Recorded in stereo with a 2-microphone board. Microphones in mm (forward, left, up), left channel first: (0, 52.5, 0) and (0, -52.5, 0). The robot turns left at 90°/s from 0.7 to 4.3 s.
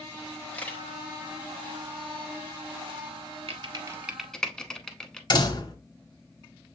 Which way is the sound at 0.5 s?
15° left (ahead or behind).